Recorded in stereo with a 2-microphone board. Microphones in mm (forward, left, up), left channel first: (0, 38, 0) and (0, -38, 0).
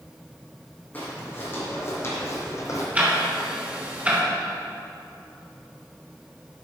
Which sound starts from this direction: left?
Footsteps, at 0.9 s.